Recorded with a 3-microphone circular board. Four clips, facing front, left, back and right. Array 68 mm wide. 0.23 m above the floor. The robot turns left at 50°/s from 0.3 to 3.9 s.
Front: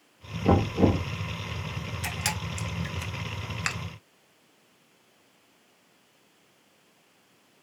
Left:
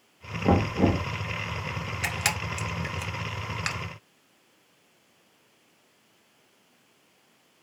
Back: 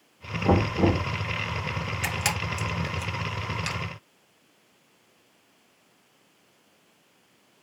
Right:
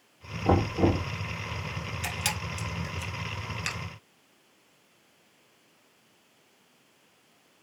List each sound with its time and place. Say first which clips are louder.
0.5 s knocking: left 1 dB, even; 80° left, 2.5 m; by 1.1 s 50° left, 2.5 m
2.0 s a camera shutter: left 5 dB, back 3 dB; 115° left, 1.0 m; by 3.8 s 30° left, 1.0 m